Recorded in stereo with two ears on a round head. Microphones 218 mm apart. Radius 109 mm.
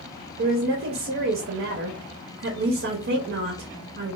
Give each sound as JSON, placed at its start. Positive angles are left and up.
{"t": 0.4, "sound": "a woman speaking", "side_deg": -50, "distance_m": 0.6}